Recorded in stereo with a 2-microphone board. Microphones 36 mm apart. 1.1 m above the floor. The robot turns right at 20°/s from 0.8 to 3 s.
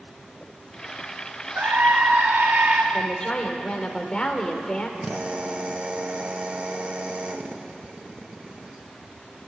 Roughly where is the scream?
Right.